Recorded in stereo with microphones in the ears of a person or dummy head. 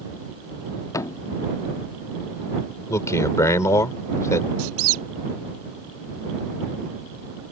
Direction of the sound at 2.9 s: 20° left (ahead or behind).